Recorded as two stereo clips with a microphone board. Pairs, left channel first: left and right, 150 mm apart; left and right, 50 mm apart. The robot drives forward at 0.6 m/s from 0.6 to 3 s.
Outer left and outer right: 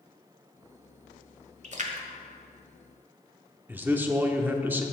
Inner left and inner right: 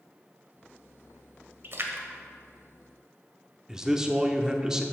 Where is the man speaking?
15° right (ahead or behind), 0.8 m.